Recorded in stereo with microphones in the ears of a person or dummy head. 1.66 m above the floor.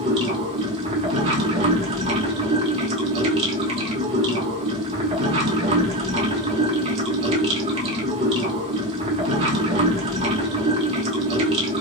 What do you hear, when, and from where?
0.0 s running water: 35° right (ahead or behind), 1.1 m